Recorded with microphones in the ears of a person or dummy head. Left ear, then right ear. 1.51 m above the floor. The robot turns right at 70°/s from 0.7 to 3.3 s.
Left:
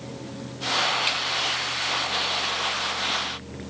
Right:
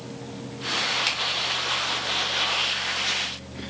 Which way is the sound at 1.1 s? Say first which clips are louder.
Left 1 dB; 75° right (ahead or behind).